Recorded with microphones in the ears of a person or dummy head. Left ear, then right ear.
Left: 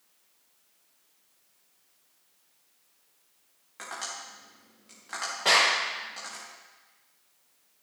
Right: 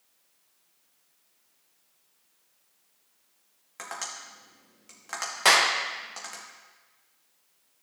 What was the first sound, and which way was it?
Tapping, 25° right (ahead or behind).